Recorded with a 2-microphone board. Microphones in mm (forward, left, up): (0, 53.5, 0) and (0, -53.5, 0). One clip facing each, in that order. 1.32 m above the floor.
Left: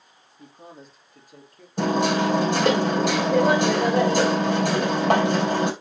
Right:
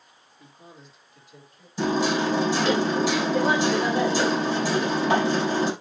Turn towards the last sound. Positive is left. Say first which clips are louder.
# left 2 dB
turn(degrees=60)  # may be behind; listen again after turning